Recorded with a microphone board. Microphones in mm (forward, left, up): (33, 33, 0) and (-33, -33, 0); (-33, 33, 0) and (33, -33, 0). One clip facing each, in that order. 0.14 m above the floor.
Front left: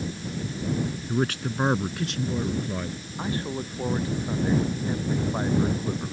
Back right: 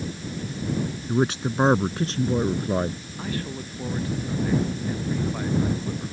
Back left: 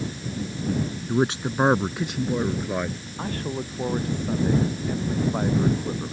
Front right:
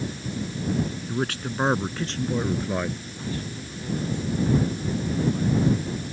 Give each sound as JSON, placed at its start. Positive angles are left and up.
{"t": 1.1, "sound": "a man speaking", "azimuth_deg": 170}
{"t": 3.2, "sound": "a man speaking", "azimuth_deg": 105}